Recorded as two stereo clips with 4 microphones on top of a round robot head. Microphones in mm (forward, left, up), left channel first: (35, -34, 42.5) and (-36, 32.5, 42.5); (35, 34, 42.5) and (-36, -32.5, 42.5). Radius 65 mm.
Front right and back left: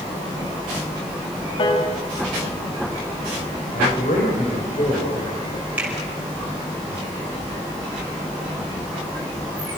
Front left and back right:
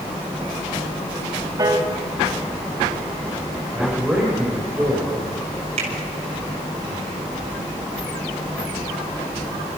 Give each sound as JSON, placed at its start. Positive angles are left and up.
{"t": 1.6, "sound": "a piano", "azimuth_deg": -85, "distance_m": 3.0}
{"t": 3.7, "sound": "a man speaking", "azimuth_deg": -55, "distance_m": 6.0}
{"t": 5.8, "sound": "a finger snap", "azimuth_deg": -145, "distance_m": 6.5}